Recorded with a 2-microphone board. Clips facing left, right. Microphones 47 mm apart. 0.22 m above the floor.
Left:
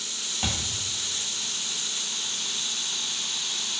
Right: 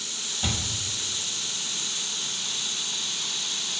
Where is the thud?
70° left (ahead or behind), 1.2 m.